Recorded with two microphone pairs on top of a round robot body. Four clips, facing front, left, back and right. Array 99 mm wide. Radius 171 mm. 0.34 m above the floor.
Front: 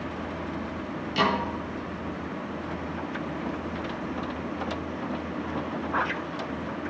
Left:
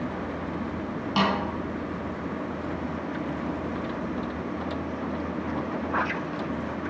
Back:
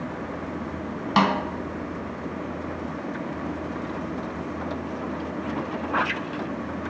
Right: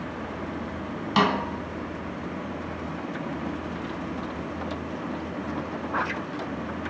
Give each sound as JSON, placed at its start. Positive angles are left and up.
{"t": 1.2, "sound": "a snare drum", "azimuth_deg": -175, "distance_m": 4.0}